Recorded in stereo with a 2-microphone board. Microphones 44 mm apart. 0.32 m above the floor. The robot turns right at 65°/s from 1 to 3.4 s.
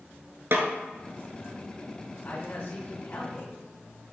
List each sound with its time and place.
0.5 s a snare drum: 65° right (ahead or behind), 1.3 m
2.2 s a man speaking: 45° left, 3 m; by 3.6 s 120° left, 3 m